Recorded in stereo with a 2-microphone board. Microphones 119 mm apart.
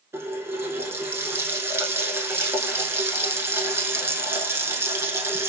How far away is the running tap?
About 0.8 m.